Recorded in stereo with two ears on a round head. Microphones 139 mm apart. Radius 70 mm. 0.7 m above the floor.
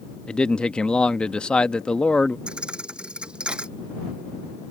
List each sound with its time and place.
0.3 s a man speaking: 5° left (ahead or behind)
2.5 s a thud: 5° right (ahead or behind)